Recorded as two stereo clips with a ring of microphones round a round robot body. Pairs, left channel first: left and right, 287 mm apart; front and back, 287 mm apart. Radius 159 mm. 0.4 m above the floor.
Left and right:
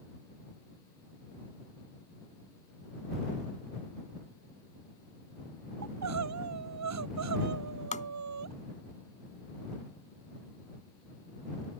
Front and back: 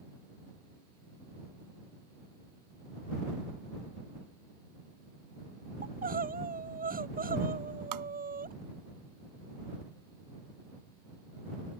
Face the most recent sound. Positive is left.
turn(degrees=155)